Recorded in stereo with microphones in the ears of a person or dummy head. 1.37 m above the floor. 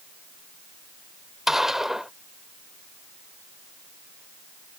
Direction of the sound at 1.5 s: 5° right (ahead or behind).